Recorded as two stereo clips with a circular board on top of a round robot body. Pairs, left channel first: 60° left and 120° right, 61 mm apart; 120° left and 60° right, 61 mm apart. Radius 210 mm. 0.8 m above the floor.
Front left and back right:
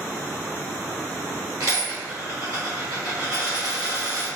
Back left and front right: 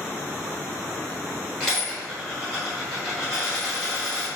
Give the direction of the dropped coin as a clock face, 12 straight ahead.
5 o'clock.